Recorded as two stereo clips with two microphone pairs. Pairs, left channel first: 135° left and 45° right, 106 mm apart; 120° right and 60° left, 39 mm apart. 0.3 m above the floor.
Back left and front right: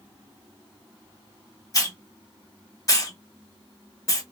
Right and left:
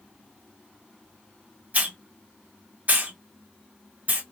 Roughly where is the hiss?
Left.